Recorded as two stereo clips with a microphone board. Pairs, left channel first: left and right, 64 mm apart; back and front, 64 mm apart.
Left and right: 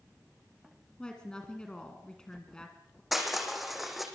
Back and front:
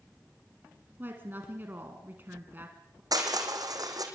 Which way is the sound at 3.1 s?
Straight ahead.